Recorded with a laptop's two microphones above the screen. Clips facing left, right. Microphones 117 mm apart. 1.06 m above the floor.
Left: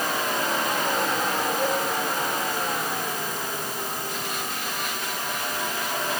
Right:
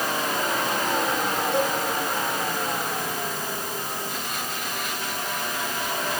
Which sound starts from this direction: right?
A cowbell, at 1.5 s.